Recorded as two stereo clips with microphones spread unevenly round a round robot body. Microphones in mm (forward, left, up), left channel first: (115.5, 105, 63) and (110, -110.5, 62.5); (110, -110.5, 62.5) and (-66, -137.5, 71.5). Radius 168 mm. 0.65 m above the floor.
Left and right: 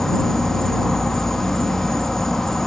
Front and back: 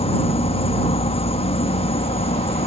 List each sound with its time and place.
0.0 s an insect: straight ahead